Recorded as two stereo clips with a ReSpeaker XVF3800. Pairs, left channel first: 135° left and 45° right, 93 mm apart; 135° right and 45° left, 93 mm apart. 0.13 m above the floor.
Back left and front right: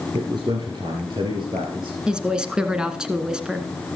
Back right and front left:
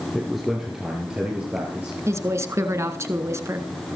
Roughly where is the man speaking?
Ahead right.